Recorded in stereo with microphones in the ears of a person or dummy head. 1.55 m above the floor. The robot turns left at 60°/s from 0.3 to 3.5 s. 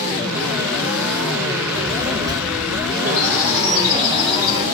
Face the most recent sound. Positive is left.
turn(degrees=-20)  # may be behind; listen again after turning